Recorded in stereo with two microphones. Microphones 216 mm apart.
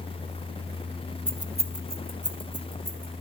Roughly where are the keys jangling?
Centre.